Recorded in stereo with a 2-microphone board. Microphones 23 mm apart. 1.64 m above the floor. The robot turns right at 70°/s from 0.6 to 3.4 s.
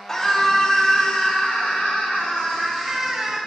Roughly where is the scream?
Ahead.